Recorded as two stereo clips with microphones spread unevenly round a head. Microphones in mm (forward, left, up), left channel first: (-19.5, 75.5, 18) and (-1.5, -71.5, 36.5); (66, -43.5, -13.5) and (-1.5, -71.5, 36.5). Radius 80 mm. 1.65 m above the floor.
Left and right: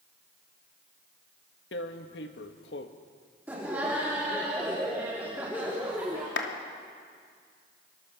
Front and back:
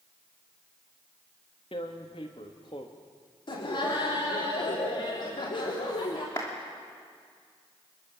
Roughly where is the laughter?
Ahead.